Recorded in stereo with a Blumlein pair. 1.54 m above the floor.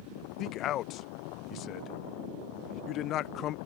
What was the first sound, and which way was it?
A man speaking, 35° left.